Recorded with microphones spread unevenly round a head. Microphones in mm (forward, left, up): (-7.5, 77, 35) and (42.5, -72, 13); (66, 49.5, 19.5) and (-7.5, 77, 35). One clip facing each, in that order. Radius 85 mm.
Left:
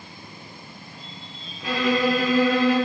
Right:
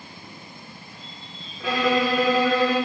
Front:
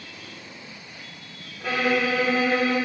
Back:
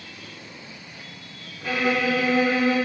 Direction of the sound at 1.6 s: 90° right.